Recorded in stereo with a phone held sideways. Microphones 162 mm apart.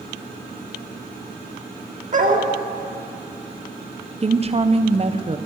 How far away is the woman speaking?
About 0.8 m.